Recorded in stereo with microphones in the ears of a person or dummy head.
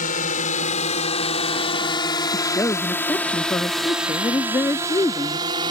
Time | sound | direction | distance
0.0 | a drone | 50° left (ahead or behind) | ?
2.3 | a woman speaking | 15° left (ahead or behind) | ?